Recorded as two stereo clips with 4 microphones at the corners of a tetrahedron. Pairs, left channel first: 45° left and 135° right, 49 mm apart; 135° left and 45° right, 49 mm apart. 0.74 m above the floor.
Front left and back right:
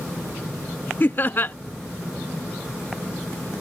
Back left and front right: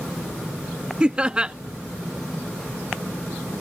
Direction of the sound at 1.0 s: 15° left.